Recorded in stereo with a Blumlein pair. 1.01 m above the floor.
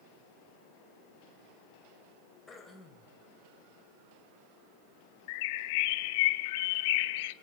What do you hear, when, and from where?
2.5 s throat clearing: 15° left, 3.5 m
5.3 s a bird: 50° left, 0.9 m